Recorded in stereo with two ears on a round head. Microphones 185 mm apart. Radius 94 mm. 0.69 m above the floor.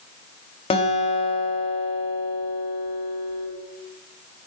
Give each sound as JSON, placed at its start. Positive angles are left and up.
{"t": 0.7, "sound": "a guitar", "side_deg": 25, "distance_m": 1.4}